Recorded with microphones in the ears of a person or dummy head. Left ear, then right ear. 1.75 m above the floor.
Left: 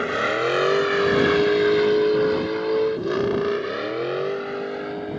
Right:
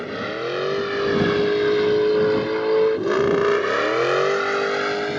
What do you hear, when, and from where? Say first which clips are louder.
0.0 s a vehicle: left 5 dB; 35° left (ahead or behind); by 5.2 s 60° right (ahead or behind)